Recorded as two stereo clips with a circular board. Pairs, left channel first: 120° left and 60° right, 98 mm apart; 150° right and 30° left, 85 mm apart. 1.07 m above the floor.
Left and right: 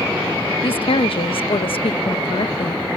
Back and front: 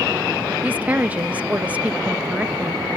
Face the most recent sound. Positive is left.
turn(degrees=100)